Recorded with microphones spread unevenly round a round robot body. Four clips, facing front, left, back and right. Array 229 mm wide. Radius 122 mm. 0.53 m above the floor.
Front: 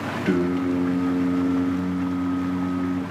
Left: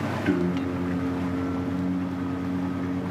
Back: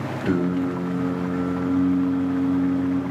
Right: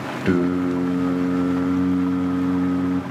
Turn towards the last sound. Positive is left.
turn(degrees=-95)